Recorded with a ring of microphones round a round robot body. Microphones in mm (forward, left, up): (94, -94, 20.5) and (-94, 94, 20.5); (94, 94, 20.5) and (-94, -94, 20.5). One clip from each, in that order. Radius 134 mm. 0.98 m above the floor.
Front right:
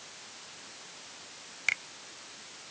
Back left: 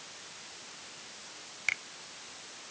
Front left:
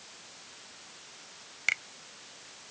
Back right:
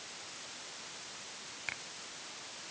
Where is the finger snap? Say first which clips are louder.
Front right 2 dB, front left 12 dB; 35° left.